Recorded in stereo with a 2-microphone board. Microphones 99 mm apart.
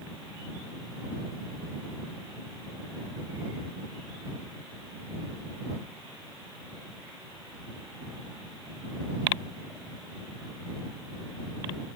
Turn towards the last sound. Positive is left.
No sound to turn to.